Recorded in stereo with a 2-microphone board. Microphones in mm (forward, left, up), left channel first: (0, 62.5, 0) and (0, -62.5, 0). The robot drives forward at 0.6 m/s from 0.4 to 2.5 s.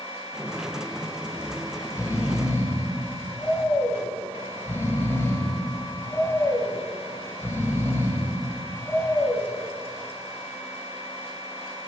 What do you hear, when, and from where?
1.4 s snoring: 40° left (ahead or behind), 0.5 m; by 9.5 s 20° left (ahead or behind), 0.9 m